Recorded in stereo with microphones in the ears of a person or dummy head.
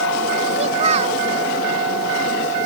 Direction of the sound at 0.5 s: 35° right (ahead or behind).